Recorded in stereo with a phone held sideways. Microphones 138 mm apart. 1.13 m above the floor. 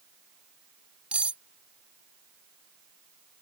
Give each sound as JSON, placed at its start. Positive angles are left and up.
{"t": 1.1, "sound": "cutlery clinking", "side_deg": -10}